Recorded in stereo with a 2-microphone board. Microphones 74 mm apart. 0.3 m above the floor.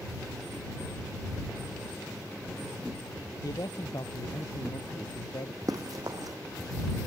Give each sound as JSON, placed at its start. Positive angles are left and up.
{"t": 3.4, "sound": "a man speaking", "side_deg": 55}
{"t": 5.7, "sound": "running footsteps", "side_deg": -60}